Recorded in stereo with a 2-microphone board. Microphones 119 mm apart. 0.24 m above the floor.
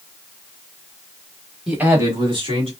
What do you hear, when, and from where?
1.7 s a man speaking: 5° right (ahead or behind), 1.0 m; by 2.7 s 55° right (ahead or behind), 1.6 m